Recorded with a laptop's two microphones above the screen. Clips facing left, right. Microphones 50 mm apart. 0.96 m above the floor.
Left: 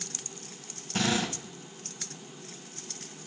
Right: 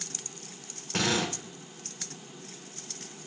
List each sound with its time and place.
0.9 s a drill: 70° right (ahead or behind), 3.5 m